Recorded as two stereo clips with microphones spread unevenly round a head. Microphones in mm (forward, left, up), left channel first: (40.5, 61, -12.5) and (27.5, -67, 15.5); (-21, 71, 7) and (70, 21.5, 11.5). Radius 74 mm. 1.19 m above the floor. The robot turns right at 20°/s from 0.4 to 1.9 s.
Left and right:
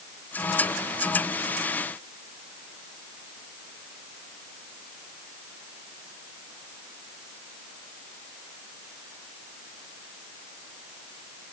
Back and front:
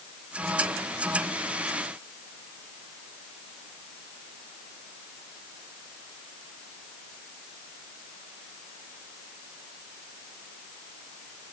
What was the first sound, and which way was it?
Only background noise.